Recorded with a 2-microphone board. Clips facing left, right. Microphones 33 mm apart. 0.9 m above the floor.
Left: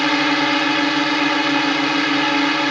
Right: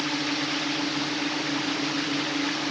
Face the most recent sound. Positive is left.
turn(degrees=65)  # may be behind; listen again after turning